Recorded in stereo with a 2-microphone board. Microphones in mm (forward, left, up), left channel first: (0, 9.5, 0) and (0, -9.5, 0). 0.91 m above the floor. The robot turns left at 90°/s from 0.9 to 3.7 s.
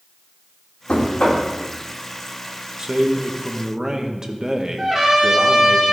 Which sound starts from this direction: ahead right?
A man speaking, at 2.8 s.